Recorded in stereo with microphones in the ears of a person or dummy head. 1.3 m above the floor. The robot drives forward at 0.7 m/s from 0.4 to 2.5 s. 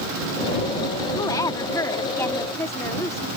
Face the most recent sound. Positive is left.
turn(degrees=20)  # may be behind; listen again after turning